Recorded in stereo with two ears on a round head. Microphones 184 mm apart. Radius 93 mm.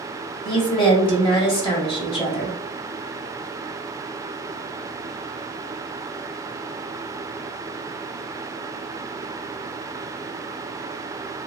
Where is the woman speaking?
25° left (ahead or behind), 1.4 m.